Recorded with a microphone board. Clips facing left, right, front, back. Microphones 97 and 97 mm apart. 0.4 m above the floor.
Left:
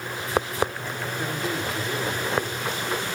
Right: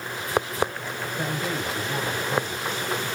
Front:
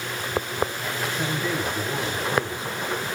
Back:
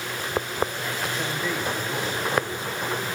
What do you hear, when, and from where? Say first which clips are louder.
1.2 s a man speaking: even, front 3 dB; 80° right, 3 m